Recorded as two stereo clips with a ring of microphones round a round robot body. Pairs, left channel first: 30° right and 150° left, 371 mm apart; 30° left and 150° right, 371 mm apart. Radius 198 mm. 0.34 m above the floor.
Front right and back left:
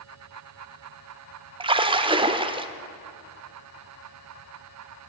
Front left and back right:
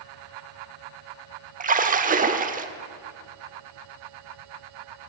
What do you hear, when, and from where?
1.6 s a splash: 160° right, 0.7 m